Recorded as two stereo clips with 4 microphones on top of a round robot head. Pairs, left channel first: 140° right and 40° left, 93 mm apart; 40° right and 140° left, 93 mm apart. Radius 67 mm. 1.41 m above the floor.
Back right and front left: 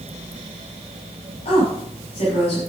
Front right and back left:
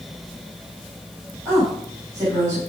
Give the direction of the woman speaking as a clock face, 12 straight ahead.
5 o'clock.